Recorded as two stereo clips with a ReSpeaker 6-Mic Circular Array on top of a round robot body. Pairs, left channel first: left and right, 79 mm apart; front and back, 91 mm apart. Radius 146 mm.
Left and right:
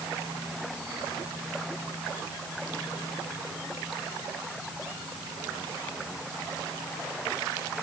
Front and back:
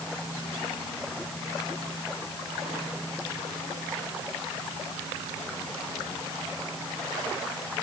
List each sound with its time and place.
Only background noise.